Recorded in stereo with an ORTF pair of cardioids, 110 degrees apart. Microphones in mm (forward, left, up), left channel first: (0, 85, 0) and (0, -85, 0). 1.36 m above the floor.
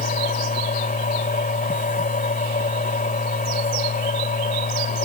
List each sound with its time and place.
0.0 s a machine running: 55° left